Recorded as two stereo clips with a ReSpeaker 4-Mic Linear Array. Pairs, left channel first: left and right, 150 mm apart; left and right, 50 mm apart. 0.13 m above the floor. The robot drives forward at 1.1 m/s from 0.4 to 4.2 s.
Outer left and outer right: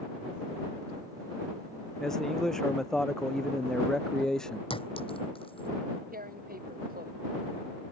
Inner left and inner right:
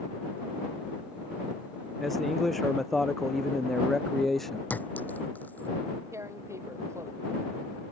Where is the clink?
40° left (ahead or behind).